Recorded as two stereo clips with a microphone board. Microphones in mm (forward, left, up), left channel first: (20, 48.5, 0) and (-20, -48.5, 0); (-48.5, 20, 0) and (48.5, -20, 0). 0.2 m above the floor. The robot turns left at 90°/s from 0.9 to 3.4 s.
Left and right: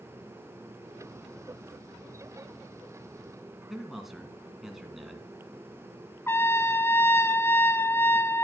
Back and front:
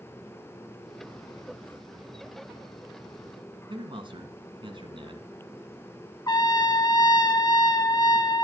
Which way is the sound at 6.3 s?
125° left.